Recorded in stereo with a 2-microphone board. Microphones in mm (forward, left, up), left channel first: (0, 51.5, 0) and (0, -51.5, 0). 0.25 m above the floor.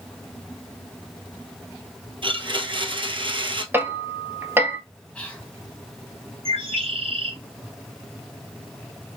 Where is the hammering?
20° right (ahead or behind), 1.1 m.